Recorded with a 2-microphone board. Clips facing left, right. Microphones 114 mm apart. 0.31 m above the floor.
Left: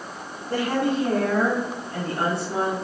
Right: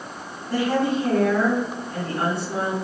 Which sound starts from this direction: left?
A woman speaking, at 0.5 s.